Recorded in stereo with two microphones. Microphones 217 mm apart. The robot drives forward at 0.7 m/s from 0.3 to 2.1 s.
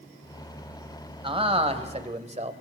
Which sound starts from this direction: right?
A man speaking, at 1.2 s.